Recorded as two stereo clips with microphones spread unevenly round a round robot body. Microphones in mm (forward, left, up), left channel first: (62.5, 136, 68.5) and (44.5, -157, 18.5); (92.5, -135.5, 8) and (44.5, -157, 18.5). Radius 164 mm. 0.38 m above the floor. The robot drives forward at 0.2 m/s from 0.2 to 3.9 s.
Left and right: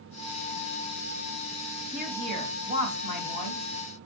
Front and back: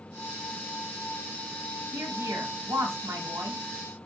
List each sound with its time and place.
1.9 s a woman speaking: 155° right, 2.5 m